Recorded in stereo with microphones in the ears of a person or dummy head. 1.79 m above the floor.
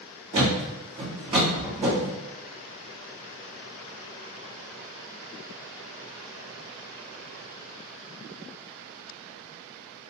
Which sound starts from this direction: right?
A thud, at 0.3 s.